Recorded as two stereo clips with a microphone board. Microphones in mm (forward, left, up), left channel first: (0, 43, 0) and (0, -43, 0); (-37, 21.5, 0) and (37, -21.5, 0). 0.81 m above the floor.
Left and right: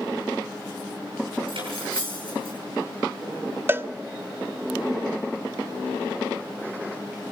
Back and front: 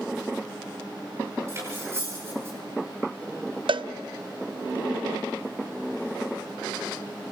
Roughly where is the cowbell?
Ahead right.